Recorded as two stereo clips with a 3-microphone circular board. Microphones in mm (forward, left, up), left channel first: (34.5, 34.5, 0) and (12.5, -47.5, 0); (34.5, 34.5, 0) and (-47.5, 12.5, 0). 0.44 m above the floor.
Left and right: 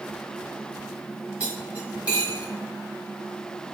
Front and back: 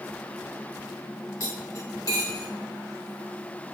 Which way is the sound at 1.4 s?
30° right.